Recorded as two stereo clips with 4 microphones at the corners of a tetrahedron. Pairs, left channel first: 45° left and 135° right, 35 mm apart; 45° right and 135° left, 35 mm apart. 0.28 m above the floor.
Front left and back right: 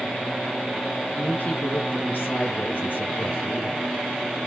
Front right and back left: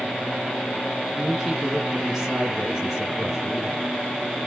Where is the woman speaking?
45° left, 2.5 m.